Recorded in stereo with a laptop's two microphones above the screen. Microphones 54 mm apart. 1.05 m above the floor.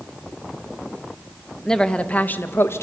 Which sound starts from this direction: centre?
A woman speaking, at 1.6 s.